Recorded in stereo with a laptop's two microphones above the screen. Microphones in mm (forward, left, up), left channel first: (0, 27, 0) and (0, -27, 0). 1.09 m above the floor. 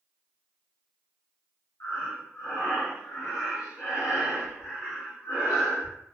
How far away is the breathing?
About 1.6 m.